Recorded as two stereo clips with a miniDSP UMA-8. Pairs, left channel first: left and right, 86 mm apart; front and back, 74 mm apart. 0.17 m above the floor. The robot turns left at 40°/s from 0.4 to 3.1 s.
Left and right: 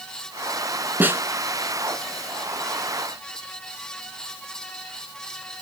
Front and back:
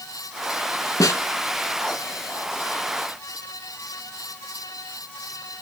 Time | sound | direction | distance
1.0 | a snare drum | 25° right | 0.7 m